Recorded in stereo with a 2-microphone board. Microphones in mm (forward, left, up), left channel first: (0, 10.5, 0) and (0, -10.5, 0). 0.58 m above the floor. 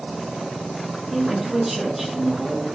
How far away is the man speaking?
About 5.5 m.